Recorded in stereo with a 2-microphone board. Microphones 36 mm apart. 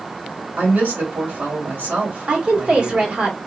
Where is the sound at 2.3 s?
35° right (ahead or behind), 1.1 m.